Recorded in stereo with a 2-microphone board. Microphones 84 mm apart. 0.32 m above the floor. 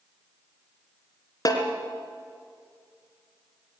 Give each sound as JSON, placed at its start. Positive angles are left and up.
{"t": 1.4, "sound": "a snare drum", "side_deg": 50, "distance_m": 3.0}